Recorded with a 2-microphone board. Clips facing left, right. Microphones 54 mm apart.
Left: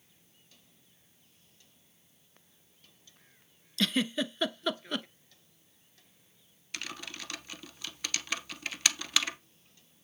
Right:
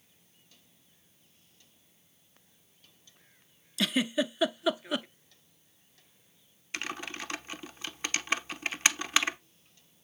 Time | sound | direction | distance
3.8 | a giggle | 10° right (ahead or behind) | 0.6 m
6.7 | typing on a keyboard | 25° right (ahead or behind) | 0.7 m